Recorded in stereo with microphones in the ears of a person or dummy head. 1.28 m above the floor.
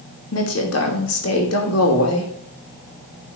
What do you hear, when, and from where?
0.3 s a woman speaking: 80° left, 3 m